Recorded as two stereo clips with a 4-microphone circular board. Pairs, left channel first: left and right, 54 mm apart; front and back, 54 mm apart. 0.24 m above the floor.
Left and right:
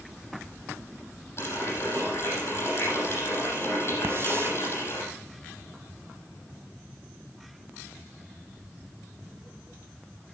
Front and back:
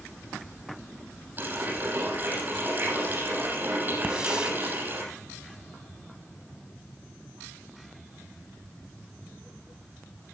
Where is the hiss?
105° right, 0.9 m.